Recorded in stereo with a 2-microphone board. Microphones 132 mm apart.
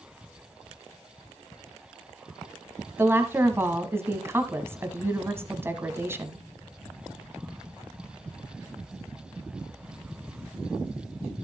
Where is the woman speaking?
20° right (ahead or behind), 1.0 m.